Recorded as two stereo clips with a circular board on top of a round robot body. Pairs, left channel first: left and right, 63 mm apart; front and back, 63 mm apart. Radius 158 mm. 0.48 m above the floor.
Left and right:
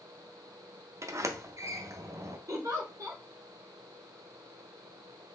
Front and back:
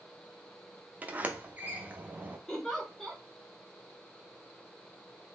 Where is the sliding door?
120° right, 0.6 m.